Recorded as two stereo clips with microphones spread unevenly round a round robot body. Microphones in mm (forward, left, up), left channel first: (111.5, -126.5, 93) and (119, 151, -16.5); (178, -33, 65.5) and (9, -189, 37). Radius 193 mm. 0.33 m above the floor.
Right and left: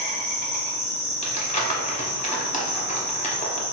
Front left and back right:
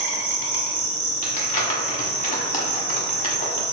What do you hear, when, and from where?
0.0 s an insect: 150° right, 1.0 m
1.2 s crumpling: 20° right, 1.2 m